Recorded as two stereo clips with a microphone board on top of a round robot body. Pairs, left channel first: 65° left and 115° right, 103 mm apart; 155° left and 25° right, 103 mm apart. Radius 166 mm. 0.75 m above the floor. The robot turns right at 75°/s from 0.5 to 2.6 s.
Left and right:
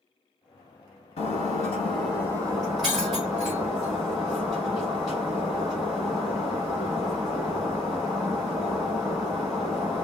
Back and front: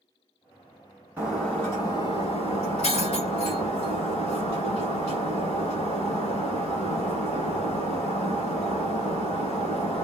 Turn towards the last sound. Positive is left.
turn(degrees=160)